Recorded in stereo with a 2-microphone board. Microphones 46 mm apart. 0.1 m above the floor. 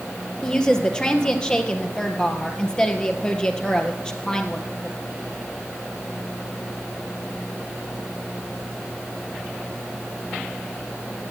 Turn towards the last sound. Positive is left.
turn(degrees=20)  # may be behind; listen again after turning